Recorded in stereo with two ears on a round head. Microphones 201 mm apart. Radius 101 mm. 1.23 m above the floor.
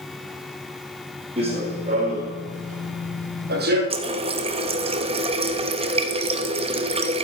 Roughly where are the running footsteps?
Right.